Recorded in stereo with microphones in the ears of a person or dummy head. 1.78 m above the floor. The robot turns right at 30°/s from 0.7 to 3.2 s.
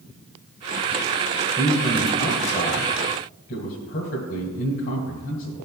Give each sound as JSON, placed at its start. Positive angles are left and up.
{"t": 1.6, "sound": "a man speaking", "side_deg": 5, "distance_m": 1.8}